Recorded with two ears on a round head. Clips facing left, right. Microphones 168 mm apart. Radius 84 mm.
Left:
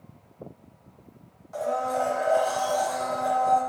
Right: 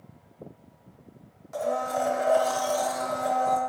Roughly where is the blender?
Right.